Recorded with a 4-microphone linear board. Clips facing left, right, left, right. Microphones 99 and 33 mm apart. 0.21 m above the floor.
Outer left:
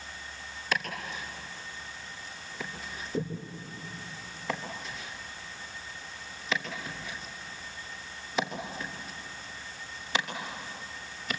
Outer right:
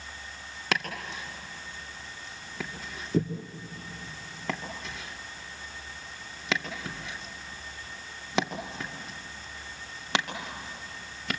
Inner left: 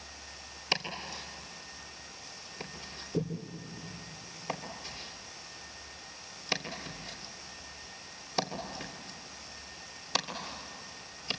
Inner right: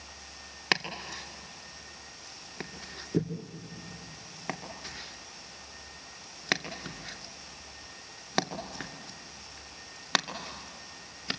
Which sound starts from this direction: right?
Chopping, at 0.7 s.